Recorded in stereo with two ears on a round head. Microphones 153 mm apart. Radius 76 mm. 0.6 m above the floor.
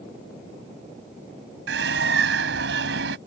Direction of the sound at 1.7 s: 75° right (ahead or behind).